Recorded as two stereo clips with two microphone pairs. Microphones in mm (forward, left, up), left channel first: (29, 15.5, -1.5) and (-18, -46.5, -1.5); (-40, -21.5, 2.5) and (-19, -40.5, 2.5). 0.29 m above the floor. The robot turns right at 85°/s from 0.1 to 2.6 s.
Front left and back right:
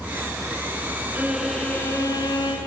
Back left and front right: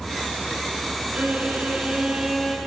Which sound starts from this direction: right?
A violin, at 1.1 s.